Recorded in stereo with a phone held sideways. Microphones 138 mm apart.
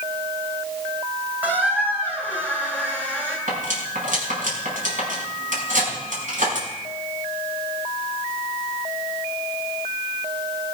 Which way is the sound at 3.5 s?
70° right (ahead or behind).